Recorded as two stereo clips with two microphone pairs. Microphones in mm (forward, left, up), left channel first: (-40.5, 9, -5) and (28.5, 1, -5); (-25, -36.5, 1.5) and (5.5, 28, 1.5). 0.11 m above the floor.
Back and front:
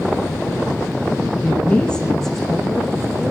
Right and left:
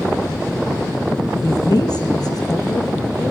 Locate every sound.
1.4 s a woman speaking: 120° right, 3 m; by 3.3 s 85° right, 3 m